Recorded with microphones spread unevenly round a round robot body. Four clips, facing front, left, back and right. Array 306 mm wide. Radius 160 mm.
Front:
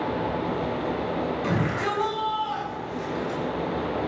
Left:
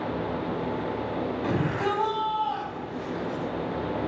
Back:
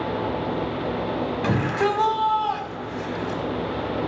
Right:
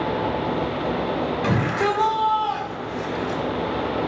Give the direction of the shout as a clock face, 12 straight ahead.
5 o'clock.